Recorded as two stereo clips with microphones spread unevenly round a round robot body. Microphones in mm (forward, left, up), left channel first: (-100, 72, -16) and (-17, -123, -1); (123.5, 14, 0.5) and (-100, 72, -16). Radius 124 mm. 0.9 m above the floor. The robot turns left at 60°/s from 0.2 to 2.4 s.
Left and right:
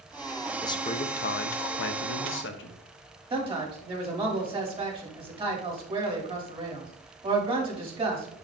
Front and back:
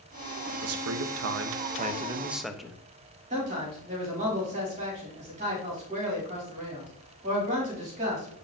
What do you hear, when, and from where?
0.6 s a man speaking: 175° right, 0.7 m; by 2.8 s 80° left, 0.7 m
3.3 s a man speaking: 130° right, 2.5 m